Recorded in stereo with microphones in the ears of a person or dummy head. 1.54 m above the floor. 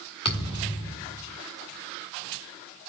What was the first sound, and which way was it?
A thud, 25° left (ahead or behind).